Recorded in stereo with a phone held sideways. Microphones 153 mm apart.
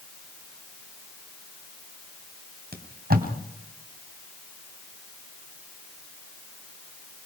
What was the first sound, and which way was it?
Tape being pulled, 75° right (ahead or behind).